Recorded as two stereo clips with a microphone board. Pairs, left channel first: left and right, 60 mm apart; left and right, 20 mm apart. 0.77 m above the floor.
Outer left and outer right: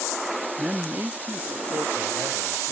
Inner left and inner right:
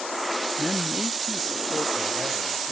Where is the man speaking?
25° right (ahead or behind), 0.7 m; by 2.7 s 75° right (ahead or behind), 3.5 m.